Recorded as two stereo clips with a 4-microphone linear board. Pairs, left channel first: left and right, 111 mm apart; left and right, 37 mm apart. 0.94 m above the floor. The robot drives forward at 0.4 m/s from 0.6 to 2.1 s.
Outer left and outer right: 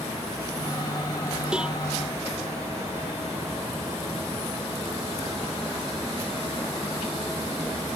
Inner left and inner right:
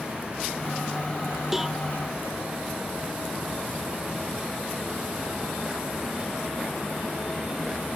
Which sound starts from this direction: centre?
A cowbell, at 1.5 s.